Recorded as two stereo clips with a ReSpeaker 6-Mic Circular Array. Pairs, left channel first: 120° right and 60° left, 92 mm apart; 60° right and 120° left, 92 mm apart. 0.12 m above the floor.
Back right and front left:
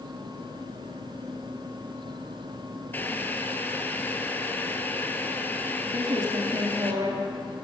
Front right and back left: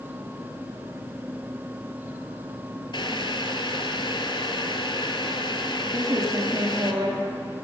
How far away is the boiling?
About 0.7 m.